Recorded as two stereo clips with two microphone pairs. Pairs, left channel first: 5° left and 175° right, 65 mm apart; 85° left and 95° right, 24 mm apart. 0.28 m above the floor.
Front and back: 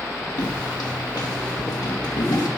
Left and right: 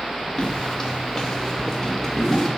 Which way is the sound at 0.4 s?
15° left.